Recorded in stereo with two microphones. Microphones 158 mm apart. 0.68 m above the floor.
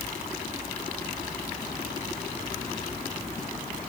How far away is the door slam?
I don't hear a door slam.